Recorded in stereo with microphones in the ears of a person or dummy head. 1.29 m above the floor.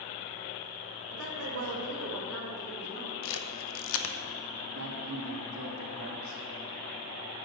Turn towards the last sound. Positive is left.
turn(degrees=-80)